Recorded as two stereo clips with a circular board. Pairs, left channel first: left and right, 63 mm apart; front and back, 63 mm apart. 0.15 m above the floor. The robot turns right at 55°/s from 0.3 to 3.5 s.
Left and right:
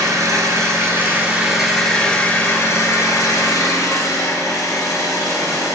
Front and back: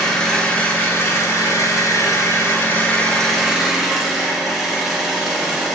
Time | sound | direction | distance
0.0 | an engine running | 75° right | 1.3 m